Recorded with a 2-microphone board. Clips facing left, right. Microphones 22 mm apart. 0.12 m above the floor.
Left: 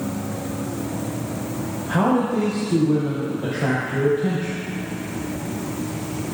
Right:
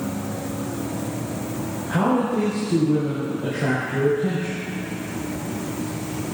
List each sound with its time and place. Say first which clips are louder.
1.9 s a man speaking: left 1 dB; 45° left (ahead or behind), 3.5 m